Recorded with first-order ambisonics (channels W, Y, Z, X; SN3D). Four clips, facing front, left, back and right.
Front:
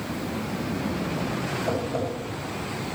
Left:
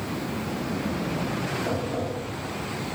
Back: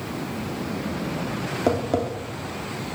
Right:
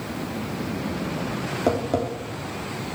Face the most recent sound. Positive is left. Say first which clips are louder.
# right 5 dB, back 7 dB
turn(degrees=-145)